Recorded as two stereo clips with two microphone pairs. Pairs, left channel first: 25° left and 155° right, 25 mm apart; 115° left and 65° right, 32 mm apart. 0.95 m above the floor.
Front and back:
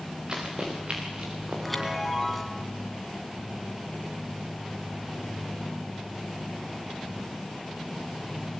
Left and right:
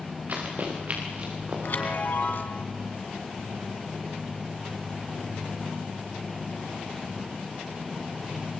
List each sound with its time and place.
0.3 s running footsteps: 100° right, 7.5 m; by 1.9 s 115° right, 8 m
1.6 s a chime: 115° left, 2 m